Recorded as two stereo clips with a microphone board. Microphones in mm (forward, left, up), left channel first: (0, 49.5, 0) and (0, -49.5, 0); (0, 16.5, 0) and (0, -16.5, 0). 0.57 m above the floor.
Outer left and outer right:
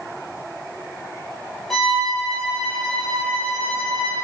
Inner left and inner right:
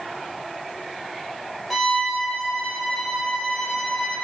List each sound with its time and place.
1.7 s a violin: 5° left (ahead or behind), 3.5 m